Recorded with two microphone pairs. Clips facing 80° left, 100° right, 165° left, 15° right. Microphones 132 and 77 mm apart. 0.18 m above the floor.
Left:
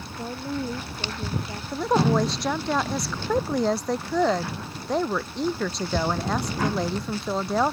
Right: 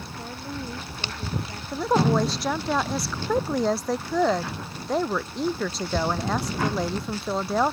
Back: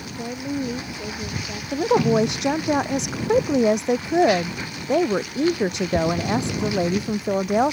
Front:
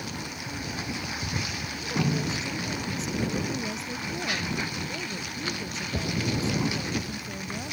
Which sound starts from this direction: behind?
A woman speaking, at 1.7 s.